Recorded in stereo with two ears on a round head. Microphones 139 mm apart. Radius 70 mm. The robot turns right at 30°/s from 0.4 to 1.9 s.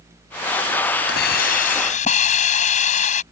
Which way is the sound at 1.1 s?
70° left (ahead or behind).